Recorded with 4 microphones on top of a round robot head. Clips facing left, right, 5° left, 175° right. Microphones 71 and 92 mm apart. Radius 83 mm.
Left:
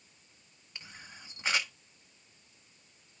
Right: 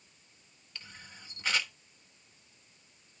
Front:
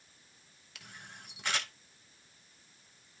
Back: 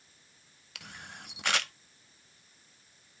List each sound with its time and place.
0.8 s a camera shutter: 165° left, 1.2 m